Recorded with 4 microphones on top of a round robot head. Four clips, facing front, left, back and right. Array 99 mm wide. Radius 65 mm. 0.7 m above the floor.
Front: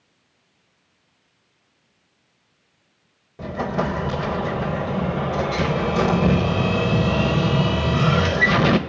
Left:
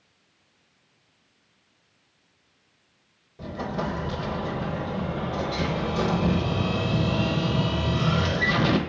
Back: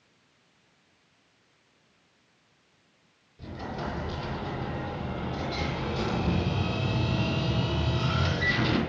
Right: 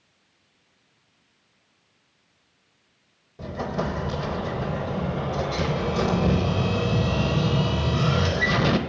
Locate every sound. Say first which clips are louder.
3.4 s an explosion: right 2 dB, front 11 dB; 10° right, 1.1 m